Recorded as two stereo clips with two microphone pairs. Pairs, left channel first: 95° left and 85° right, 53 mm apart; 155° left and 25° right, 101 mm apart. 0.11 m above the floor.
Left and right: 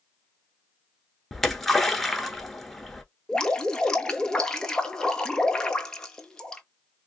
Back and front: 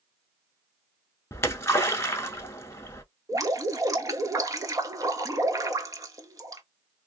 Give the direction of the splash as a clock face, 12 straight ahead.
6 o'clock.